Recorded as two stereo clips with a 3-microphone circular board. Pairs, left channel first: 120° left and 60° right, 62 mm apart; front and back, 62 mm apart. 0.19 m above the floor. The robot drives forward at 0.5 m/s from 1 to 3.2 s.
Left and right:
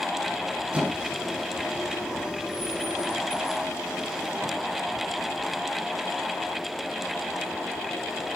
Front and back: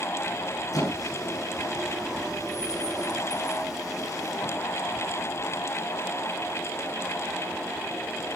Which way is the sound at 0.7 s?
15° left.